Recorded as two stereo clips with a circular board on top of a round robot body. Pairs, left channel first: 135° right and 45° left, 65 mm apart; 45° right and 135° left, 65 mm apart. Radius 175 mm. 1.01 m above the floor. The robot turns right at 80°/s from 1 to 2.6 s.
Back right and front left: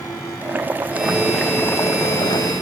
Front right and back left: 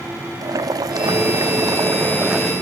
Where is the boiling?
110° left; by 2.5 s 130° right.